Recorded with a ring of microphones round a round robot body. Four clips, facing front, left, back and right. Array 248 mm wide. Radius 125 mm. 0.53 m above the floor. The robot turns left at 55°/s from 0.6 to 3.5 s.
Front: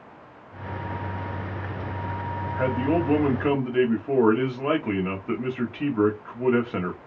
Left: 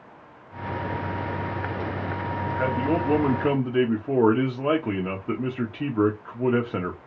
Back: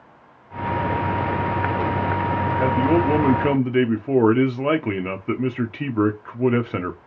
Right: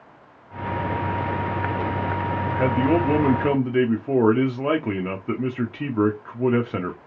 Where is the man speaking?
110° right, 0.7 m; by 7.0 s 165° right, 0.7 m.